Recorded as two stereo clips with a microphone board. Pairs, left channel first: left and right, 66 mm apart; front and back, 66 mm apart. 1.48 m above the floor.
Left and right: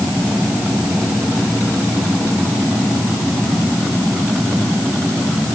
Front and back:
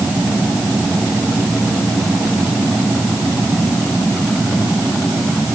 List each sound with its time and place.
Only background noise.